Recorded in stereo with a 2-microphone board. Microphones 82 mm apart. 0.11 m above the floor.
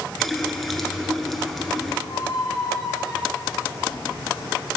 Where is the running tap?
Centre (ahead or behind), 0.9 m.